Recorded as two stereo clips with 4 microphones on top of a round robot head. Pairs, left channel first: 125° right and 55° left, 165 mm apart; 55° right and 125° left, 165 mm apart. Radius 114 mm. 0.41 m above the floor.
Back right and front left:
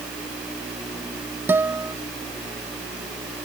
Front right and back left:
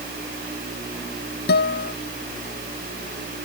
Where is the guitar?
25° right.